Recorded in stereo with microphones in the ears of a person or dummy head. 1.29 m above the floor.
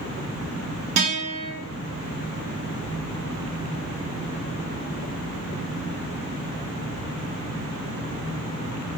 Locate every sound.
1.0 s a guitar: 30° right (ahead or behind), 1.1 m